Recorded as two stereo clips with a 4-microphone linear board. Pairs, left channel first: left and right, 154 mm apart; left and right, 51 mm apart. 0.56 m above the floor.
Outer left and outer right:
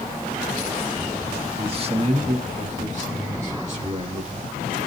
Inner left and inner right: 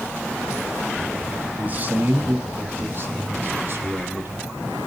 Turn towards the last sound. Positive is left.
turn(degrees=-50)  # may be behind; listen again after turning